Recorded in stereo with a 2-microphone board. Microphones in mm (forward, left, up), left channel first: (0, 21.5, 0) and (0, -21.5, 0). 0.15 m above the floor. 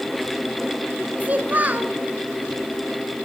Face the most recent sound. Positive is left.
turn(degrees=-40)  # may be behind; listen again after turning